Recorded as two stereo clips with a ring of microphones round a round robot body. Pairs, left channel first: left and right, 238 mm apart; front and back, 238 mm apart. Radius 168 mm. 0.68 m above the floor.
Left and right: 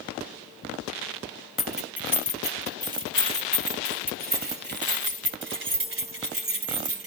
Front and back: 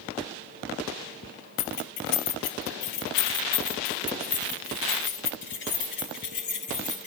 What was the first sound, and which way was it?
Keys jangling, straight ahead.